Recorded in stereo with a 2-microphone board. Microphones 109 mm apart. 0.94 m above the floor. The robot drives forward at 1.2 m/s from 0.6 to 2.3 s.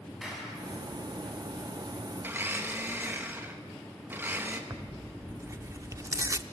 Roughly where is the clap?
Centre.